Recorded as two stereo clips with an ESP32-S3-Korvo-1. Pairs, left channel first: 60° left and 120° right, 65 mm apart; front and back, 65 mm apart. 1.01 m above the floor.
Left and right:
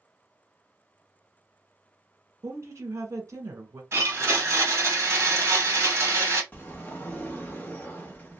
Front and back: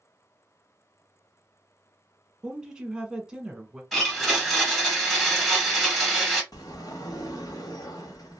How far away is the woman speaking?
About 1.1 m.